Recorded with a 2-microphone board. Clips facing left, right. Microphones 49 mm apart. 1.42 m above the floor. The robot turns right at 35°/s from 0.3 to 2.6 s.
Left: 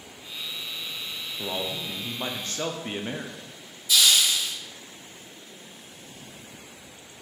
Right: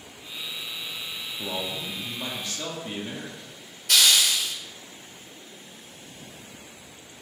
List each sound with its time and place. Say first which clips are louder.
1.4 s a man speaking: left 1 dB; 15° left, 0.6 m; by 3.6 s 55° left, 0.6 m
3.9 s a hiss: right 1 dB; 55° right (ahead or behind), 0.6 m